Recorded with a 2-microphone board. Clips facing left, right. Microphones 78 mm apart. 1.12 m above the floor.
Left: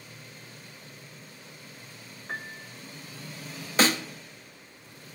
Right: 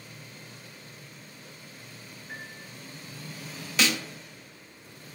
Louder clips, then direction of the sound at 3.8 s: Left 4 dB; 35° left (ahead or behind).